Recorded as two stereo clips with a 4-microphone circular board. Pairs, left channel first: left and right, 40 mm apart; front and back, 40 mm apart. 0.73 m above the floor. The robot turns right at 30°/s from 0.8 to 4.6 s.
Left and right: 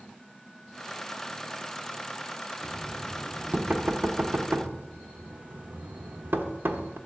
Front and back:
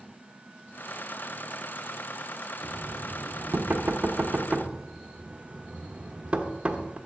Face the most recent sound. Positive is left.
turn(degrees=-120)